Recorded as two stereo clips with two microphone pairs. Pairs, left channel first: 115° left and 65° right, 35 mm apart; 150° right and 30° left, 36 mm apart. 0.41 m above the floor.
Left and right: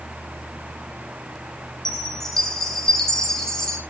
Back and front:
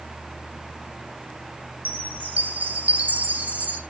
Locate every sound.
1.9 s a chime: 40° left, 2 m